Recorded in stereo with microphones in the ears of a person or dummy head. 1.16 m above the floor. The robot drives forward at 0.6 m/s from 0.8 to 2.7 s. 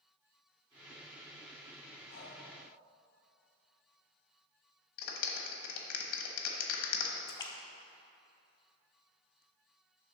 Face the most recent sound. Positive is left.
turn(degrees=15)  # may be behind; listen again after turning